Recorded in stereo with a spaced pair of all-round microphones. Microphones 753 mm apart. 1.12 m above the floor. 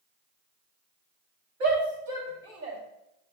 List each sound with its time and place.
1.6 s a shout: 85° right, 2.5 m; by 2.8 s 80° right, 2.5 m